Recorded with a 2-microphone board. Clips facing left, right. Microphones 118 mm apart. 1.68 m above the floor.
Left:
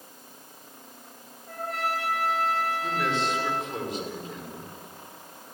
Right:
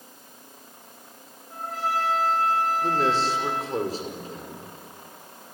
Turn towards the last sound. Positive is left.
turn(degrees=-35)  # may be behind; listen again after turning